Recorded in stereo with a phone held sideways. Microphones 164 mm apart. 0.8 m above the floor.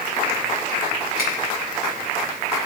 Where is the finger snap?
75° left (ahead or behind), 5 m.